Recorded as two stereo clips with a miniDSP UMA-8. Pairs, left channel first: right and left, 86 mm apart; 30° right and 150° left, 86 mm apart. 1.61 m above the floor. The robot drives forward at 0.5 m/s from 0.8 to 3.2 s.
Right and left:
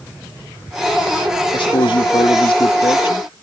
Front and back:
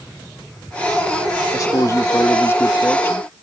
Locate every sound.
1.5 s a man speaking: 75° right; by 3.3 s 95° right